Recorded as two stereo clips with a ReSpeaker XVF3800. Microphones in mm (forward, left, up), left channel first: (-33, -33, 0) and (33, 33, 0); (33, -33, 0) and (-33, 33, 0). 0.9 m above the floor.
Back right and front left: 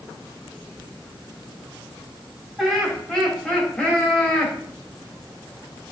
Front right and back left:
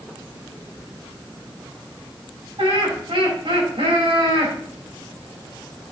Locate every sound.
2.6 s laughter: 140° left, 4 m; by 4.5 s 155° left, 3.5 m